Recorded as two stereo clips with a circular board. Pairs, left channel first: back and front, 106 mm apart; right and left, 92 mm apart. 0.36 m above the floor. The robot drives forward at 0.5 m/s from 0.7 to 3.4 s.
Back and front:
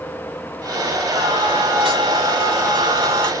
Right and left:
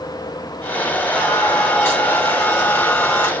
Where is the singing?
15° right, 2 m; by 3.3 s 40° right, 1.2 m.